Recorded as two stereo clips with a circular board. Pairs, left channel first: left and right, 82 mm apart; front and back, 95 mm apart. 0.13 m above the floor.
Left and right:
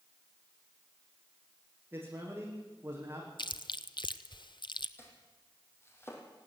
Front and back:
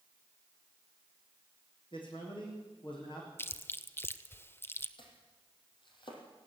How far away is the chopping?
About 4.5 m.